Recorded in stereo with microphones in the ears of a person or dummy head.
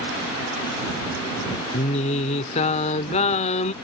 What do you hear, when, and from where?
1.7 s singing: 35° left (ahead or behind)